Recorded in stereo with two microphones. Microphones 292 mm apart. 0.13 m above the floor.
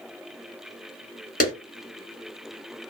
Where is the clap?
30° left (ahead or behind), 1.5 m.